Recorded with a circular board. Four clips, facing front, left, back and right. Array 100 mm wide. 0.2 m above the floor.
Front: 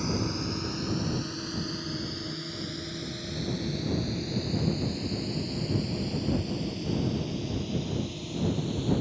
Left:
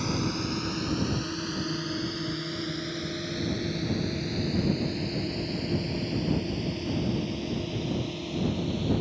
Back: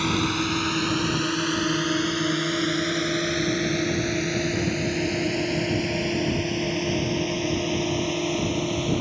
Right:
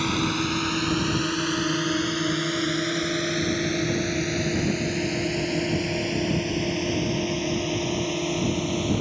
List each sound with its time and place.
0.0 s a drone: 145° right